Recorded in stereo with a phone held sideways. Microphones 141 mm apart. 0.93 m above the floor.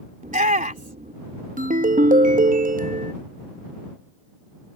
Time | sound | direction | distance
0.2 | a shout | 70° right (ahead or behind) | ?
1.6 | a ringtone | 75° right (ahead or behind) | ?